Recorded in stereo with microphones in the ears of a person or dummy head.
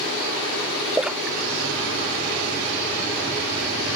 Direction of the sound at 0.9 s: 5° right (ahead or behind).